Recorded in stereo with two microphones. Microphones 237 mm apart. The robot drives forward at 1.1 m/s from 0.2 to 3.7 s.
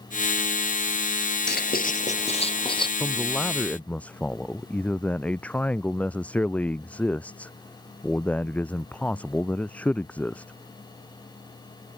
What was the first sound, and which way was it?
Writing, 45° left (ahead or behind).